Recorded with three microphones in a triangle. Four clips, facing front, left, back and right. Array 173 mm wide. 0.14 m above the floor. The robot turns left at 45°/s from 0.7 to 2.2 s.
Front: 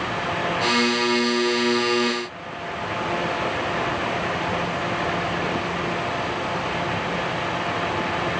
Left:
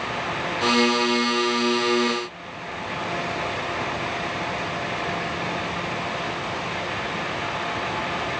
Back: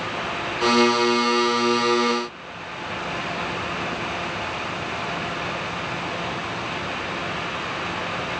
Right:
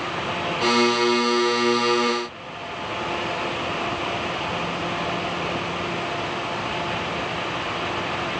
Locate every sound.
Only background noise.